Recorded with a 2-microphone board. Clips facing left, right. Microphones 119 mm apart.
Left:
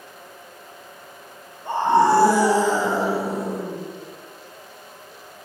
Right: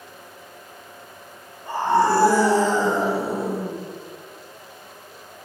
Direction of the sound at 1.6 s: 25° left (ahead or behind).